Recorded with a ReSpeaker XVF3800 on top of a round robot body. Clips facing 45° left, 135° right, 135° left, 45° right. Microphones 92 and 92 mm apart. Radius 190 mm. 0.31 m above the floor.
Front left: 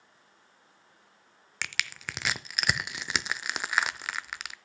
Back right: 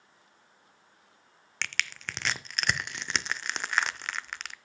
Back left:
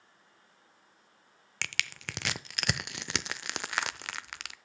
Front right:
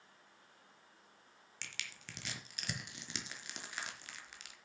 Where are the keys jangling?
I don't hear keys jangling.